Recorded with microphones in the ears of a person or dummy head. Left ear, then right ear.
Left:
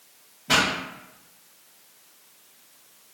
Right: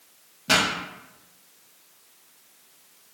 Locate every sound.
0.5 s a pop: 60° right (ahead or behind), 0.9 m